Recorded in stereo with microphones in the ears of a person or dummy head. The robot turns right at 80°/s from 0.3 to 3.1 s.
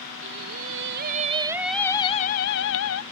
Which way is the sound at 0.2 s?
115° right.